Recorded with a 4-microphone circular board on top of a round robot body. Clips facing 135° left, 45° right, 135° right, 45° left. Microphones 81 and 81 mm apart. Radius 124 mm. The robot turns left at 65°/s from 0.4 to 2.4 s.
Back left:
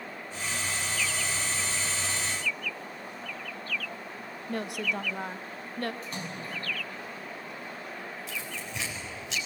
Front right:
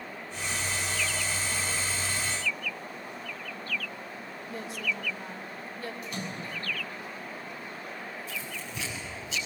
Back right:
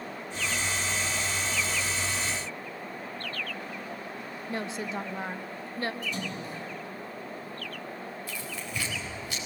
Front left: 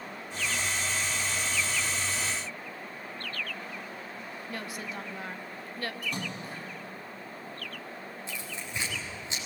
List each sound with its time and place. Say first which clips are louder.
4.5 s a woman speaking: back left 3 dB, back right 6 dB; 165° left, 1.1 m
6.0 s a splash: front right 1 dB, back right 1 dB; 80° left, 5.5 m
8.3 s tearing paper: even, back right 2 dB; 115° left, 5 m